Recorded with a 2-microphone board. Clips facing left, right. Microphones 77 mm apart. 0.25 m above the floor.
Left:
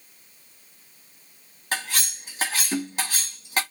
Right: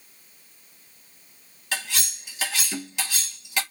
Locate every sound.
1.7 s cutlery clinking: 40° left (ahead or behind), 1.1 m